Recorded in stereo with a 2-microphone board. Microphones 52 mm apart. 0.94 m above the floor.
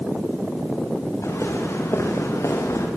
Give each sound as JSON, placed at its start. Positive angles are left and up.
{"t": 1.2, "sound": "footsteps", "side_deg": 60, "distance_m": 8.0}